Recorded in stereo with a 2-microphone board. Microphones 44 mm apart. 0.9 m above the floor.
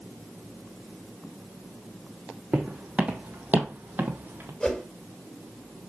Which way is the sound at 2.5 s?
20° right (ahead or behind).